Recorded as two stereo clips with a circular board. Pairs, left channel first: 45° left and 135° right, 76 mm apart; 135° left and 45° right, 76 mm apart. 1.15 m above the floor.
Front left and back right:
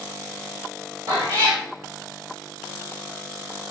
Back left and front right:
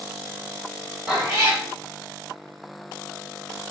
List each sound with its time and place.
1.1 s a cat meowing: 115° right, 1.7 m